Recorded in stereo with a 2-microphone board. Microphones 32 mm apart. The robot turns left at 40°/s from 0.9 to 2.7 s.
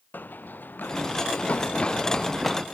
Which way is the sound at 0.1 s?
85° left.